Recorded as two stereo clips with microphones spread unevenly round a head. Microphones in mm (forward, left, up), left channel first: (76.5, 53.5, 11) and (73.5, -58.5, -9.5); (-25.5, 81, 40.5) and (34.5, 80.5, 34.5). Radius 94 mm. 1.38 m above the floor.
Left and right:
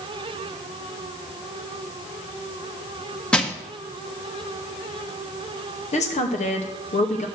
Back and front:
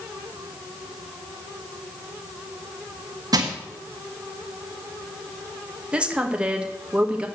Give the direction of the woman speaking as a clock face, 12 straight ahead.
10 o'clock.